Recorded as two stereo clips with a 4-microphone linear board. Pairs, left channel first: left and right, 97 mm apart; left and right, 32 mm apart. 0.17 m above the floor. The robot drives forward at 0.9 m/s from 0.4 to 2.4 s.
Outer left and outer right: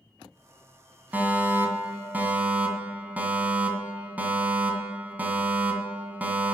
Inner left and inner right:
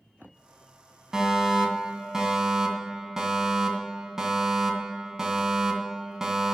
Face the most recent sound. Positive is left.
turn(degrees=-15)  # may be behind; listen again after turning